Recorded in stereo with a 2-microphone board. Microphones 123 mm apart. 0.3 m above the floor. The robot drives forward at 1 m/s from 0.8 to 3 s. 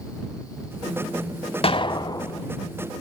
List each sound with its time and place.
1.6 s an explosion: 50° left (ahead or behind), 0.8 m; by 2.5 s 25° left (ahead or behind), 1.4 m